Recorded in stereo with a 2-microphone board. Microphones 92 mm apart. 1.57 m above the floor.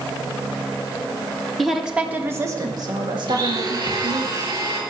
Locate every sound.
1.6 s a woman speaking: 5° left (ahead or behind), 1.8 m; by 4.3 s 75° right (ahead or behind), 3 m
3.3 s a blender: 45° right (ahead or behind), 3.5 m